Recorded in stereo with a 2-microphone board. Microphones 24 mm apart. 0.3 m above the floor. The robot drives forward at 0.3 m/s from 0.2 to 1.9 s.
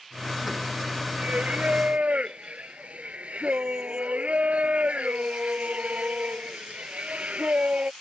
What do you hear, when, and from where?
1.2 s singing: 90° right; by 7.9 s 75° right (ahead or behind)